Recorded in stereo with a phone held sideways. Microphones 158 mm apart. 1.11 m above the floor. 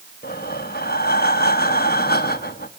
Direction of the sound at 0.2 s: 80° left.